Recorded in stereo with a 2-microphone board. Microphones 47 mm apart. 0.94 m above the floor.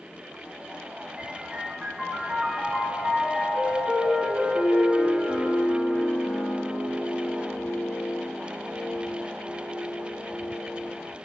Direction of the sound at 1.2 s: 5° right (ahead or behind).